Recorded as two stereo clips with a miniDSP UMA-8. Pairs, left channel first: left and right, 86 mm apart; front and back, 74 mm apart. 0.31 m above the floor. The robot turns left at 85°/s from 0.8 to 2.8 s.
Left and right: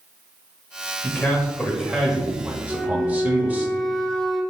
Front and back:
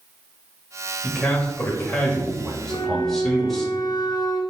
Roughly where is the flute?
Ahead.